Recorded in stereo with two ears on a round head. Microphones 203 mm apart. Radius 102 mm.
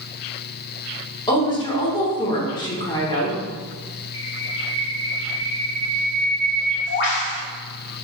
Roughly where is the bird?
Left.